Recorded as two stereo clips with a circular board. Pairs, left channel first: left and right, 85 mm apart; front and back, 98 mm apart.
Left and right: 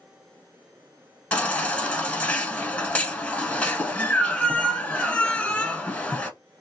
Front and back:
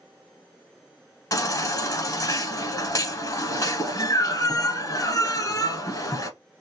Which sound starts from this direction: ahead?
A baby crying, at 1.3 s.